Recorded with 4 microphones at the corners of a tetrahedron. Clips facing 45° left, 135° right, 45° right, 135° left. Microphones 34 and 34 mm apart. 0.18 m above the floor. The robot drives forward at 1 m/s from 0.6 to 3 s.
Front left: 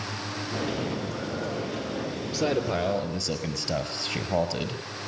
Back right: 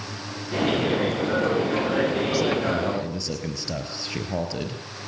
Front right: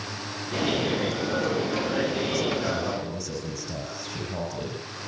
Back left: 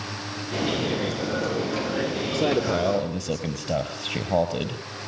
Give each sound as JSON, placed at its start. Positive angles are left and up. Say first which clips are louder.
{"t": 2.3, "sound": "a man speaking", "louder": "back right 3 dB, back left 3 dB", "azimuth_deg": 140, "distance_m": 3.5}